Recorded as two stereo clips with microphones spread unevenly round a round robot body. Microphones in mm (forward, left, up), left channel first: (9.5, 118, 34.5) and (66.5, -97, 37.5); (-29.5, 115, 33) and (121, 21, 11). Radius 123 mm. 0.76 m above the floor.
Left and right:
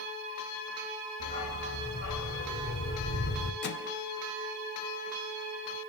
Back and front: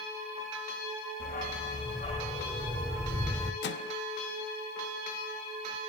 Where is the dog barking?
115° left, 2 m; by 3.5 s 55° left, 1.2 m.